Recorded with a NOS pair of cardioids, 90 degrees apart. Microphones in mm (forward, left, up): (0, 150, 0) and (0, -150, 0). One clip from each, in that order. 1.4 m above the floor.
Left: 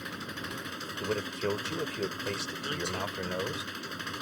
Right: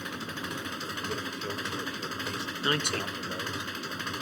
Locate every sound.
0.0 s an engine running: 20° right
1.0 s a man speaking: 55° left
2.6 s a man speaking: 70° right